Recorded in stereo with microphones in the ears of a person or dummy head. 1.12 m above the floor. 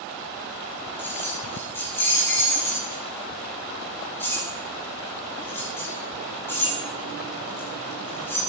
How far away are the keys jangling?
About 7 m.